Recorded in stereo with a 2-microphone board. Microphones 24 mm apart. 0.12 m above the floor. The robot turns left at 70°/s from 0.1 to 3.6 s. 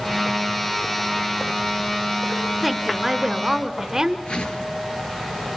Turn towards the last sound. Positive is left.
turn(degrees=40)  # may be behind; listen again after turning